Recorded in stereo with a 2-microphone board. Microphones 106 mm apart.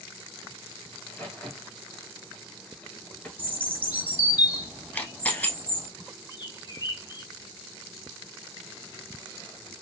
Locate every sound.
0.9 s a crack: 15° left (ahead or behind), 1.9 m
3.4 s a bird: 20° right (ahead or behind), 1.2 m
4.9 s a camera shutter: 15° left (ahead or behind), 1.0 m
6.3 s a bird: 45° left (ahead or behind), 1.0 m